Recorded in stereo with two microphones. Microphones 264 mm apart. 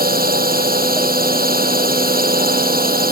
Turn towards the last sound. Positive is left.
turn(degrees=-35)  # may be behind; listen again after turning